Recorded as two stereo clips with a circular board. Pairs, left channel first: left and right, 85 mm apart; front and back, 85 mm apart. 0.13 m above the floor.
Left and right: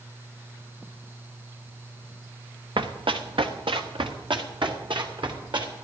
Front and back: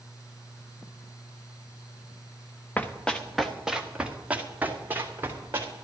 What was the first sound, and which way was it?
Running footsteps, 70° right.